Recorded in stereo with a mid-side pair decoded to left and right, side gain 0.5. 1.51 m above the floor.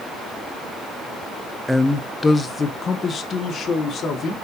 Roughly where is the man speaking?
Ahead.